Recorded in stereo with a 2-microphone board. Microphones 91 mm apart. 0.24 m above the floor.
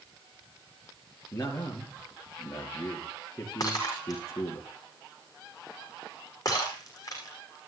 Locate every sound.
1.3 s a man speaking: 35° left (ahead or behind), 5 m
3.6 s breaking glass: 40° left (ahead or behind), 6 m